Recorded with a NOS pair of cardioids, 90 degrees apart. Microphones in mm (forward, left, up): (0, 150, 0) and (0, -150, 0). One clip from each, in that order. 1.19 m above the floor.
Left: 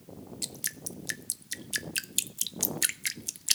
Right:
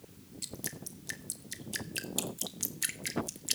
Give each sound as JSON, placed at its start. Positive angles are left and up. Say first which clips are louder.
{"t": 0.4, "sound": "dripping", "louder": "left 4 dB", "azimuth_deg": 35, "distance_m": 0.8}